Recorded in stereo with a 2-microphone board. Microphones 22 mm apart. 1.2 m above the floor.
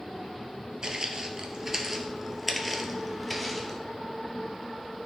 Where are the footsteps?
30° right (ahead or behind), 1.3 m; by 3.8 s 10° left (ahead or behind), 1.7 m.